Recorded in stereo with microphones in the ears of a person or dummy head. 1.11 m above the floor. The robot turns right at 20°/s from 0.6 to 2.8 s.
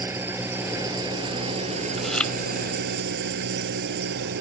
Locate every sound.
0.0 s an engine running: 170° right; by 4.4 s 125° right
2.0 s chewing: centre (ahead or behind); by 2.3 s 10° left (ahead or behind)